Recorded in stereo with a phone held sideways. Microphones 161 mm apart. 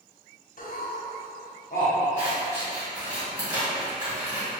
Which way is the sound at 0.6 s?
65° left (ahead or behind).